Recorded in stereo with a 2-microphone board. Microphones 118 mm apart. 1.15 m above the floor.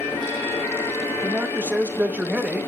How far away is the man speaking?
About 1.2 m.